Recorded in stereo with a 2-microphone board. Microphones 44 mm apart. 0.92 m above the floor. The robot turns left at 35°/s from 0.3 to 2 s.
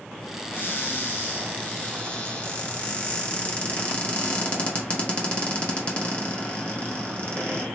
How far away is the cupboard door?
About 1.2 m.